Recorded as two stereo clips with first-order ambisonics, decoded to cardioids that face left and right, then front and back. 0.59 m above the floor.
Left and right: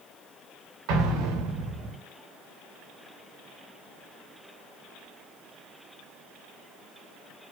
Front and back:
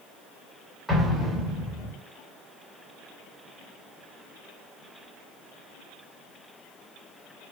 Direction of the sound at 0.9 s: 90° right.